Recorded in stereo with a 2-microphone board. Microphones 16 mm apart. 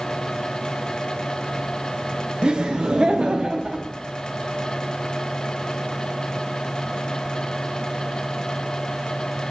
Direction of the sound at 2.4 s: 65° right (ahead or behind).